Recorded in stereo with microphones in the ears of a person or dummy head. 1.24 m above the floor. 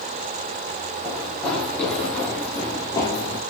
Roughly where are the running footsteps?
Centre.